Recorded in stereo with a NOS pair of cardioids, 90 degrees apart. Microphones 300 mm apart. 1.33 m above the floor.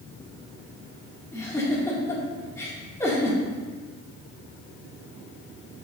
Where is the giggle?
10° left, 2.5 m.